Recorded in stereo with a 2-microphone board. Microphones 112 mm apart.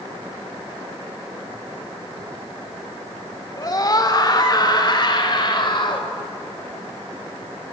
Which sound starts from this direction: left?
A scream, at 3.6 s.